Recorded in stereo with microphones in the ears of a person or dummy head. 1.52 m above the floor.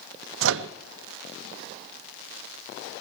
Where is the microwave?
75° right (ahead or behind), 0.6 m.